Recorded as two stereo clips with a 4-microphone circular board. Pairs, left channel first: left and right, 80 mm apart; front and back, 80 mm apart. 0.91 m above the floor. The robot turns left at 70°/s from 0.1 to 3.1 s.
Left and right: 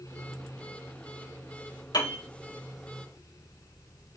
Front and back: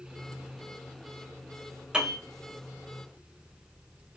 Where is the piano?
105° left, 2.5 m; by 2.2 s 85° left, 2.5 m.